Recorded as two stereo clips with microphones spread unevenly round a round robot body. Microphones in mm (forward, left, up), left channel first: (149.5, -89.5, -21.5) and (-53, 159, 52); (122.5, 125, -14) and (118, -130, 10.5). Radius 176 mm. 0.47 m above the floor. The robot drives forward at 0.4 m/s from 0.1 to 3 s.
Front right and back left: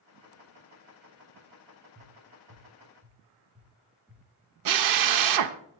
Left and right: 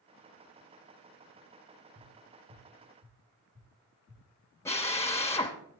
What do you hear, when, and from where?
1.9 s tapping: 155° right, 5.5 m
4.7 s a drill: 165° left, 0.5 m